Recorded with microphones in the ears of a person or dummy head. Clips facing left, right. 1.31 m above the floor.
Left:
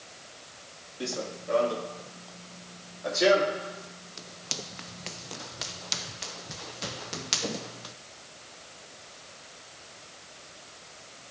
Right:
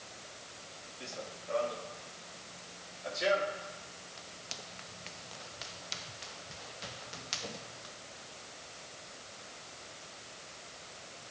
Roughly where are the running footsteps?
Left.